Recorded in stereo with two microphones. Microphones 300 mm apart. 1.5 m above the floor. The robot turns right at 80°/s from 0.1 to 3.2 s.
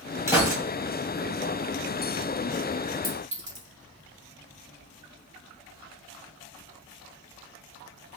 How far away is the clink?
About 2.5 m.